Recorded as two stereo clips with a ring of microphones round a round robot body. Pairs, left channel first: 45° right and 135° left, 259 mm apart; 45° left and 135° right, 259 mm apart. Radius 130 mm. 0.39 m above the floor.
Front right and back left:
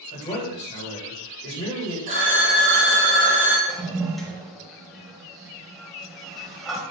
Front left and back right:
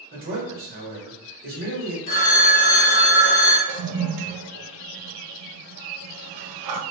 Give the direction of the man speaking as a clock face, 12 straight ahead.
3 o'clock.